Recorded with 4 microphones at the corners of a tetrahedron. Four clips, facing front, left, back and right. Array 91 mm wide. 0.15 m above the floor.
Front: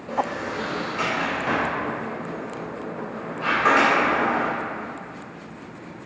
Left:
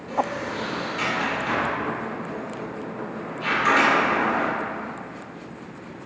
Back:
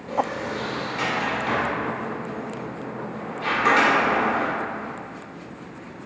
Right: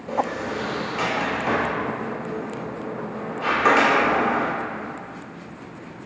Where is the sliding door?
120° right, 1.9 m.